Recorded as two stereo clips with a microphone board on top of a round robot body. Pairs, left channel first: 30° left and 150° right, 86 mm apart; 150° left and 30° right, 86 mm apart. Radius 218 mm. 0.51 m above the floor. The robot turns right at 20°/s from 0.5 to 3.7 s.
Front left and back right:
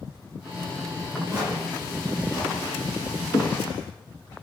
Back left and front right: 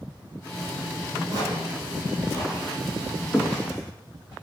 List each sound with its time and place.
1.3 s footsteps: 90° right, 0.9 m; by 4.3 s 85° left, 1.1 m